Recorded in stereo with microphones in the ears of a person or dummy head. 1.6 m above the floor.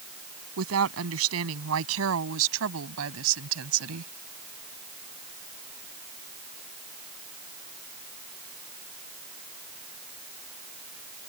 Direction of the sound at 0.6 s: 85° right.